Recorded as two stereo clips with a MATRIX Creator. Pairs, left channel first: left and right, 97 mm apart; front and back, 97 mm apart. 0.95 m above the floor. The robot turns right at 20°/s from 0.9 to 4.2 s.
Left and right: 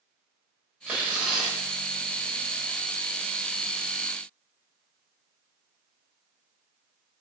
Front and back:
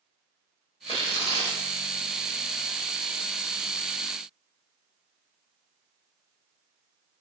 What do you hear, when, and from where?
0.9 s tearing paper: 15° right, 1.1 m; by 1.6 s 5° right, 1.1 m